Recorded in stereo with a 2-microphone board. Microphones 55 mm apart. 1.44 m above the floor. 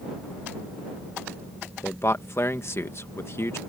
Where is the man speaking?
55° left (ahead or behind).